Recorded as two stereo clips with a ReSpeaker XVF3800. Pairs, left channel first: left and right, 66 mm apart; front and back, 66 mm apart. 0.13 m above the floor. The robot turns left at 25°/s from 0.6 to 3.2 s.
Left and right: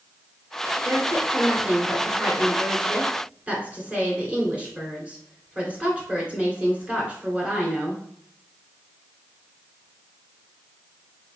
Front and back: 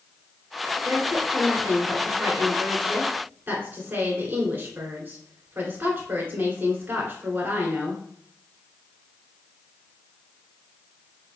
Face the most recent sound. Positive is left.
turn(degrees=-145)